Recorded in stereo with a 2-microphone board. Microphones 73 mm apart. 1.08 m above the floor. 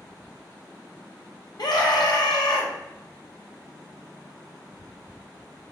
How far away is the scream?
About 0.8 m.